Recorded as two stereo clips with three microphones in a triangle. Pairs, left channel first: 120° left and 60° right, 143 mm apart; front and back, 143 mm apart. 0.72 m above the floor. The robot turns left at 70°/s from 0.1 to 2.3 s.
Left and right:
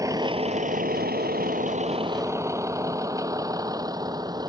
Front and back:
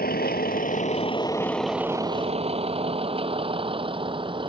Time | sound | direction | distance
0.0 | a vehicle | 5° left | ?